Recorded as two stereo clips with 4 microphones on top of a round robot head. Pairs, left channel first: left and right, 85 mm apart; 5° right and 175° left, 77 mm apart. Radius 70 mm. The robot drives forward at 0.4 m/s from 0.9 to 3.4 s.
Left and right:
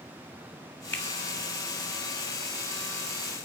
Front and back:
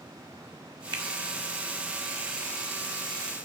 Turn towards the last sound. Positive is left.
turn(degrees=165)